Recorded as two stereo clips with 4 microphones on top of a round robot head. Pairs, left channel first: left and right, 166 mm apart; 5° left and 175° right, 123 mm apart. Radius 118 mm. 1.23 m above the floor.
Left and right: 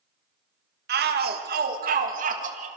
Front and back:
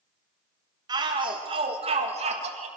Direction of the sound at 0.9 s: 115° right.